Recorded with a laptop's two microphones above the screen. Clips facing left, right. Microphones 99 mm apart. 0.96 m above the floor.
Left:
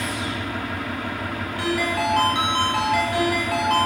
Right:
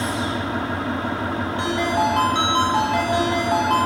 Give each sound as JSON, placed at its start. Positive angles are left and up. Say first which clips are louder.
{"t": 0.0, "sound": "an engine running", "louder": "right 4 dB", "side_deg": -25, "distance_m": 0.9}
{"t": 1.6, "sound": "a ringtone", "louder": "right 2 dB", "side_deg": -25, "distance_m": 5.0}